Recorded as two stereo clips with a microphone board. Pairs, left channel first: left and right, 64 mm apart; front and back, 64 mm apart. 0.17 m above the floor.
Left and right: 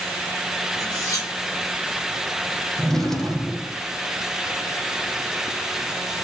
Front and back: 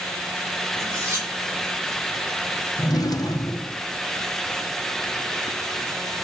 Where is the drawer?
5° left, 4.5 m.